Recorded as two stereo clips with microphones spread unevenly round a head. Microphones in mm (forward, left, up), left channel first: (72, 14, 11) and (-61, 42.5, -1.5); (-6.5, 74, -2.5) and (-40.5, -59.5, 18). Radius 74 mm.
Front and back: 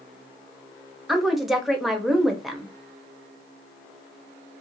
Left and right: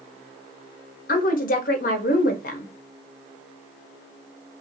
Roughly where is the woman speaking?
Left.